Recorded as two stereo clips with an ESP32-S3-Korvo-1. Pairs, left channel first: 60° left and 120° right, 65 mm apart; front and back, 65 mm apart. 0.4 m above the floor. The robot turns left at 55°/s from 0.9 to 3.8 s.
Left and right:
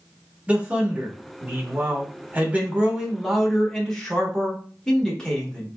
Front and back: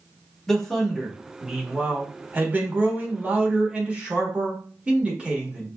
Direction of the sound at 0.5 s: 75° right.